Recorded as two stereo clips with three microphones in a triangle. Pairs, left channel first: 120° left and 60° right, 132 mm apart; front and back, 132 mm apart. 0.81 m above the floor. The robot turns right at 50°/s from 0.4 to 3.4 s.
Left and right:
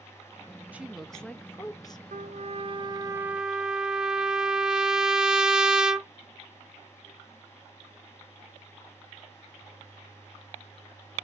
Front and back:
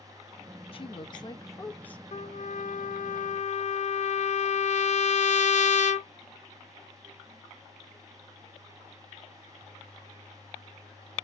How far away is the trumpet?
About 0.6 m.